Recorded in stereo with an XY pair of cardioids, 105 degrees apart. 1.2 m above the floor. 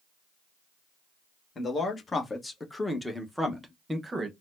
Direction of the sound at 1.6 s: 40° left.